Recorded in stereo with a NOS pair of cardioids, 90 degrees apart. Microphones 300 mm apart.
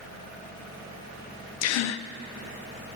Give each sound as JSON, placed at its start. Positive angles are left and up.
{"t": 1.6, "sound": "a gasp", "azimuth_deg": 55, "distance_m": 0.5}